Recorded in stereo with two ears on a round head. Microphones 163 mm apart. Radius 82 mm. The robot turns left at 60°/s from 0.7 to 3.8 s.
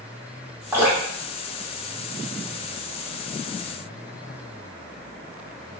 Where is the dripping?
15° right (ahead or behind), 1.3 m; by 2.6 s 45° left (ahead or behind), 1.3 m.